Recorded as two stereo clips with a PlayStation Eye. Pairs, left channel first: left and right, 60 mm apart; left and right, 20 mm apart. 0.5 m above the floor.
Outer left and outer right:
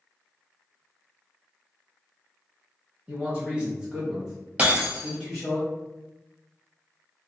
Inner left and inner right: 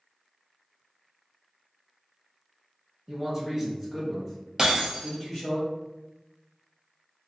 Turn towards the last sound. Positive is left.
turn(degrees=-20)  # may be behind; listen again after turning